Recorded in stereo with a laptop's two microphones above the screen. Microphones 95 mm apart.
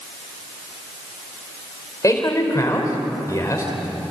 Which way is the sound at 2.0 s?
35° left (ahead or behind).